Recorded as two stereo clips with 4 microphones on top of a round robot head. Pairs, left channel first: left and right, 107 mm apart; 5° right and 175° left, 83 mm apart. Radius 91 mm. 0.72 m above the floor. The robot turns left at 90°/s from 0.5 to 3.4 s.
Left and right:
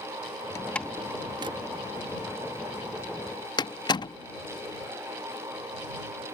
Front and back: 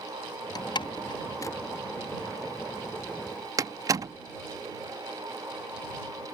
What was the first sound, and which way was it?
A door slam, 30° left.